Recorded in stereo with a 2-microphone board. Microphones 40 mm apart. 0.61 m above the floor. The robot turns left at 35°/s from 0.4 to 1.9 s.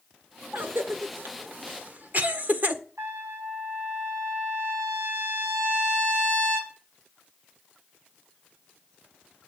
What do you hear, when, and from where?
0.5 s a cough: 65° right (ahead or behind), 1.6 m; by 2.8 s 45° right (ahead or behind), 1.6 m
3.0 s a trumpet: 80° right, 4.5 m